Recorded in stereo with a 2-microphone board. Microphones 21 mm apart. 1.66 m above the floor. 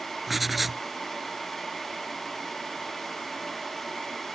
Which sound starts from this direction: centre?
Writing, at 0.3 s.